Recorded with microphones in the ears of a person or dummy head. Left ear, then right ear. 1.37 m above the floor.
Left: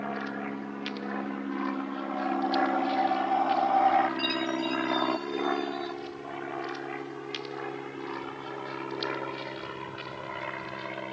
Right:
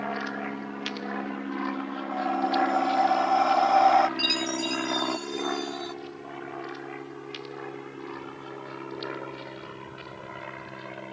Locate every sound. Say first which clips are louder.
0.0 s an aircraft: right 3 dB; 25° right (ahead or behind); by 11.1 s 20° left (ahead or behind)
2.1 s breathing: right 3 dB; 75° right (ahead or behind)
4.2 s a chime: right 3 dB; 35° right (ahead or behind)